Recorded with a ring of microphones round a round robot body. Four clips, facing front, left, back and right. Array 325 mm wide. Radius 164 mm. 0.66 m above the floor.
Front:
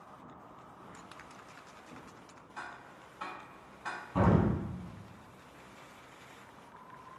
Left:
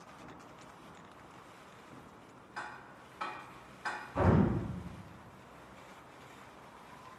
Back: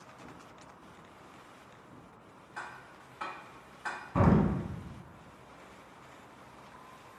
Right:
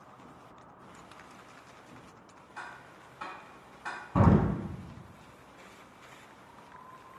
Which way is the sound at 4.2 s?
100° right.